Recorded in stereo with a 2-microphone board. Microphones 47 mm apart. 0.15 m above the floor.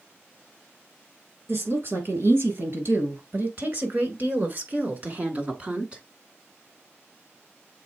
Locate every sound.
1.5 s a woman speaking: 60° right (ahead or behind), 3.5 m; by 6.0 s 25° right (ahead or behind), 1.5 m